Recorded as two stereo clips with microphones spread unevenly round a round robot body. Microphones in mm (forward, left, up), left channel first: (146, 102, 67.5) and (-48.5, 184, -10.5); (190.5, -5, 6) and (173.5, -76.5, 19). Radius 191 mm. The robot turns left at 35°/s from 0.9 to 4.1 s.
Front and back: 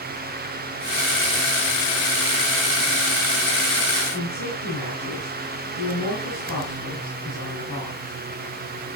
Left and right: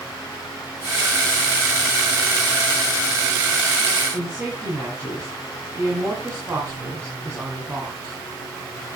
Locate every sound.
4.1 s a woman speaking: 50° right, 4 m